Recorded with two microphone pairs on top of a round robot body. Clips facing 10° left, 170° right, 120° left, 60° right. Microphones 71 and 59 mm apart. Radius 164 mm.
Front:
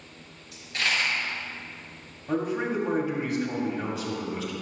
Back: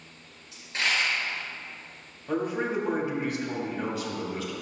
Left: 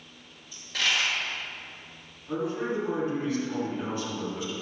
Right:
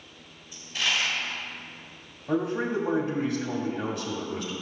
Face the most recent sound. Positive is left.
turn(degrees=-85)